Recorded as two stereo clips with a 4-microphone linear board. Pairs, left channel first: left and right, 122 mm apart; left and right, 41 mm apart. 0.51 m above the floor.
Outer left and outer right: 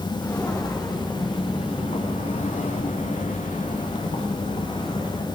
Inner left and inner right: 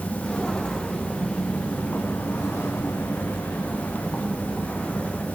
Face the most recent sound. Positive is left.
turn(degrees=45)  # may be behind; listen again after turning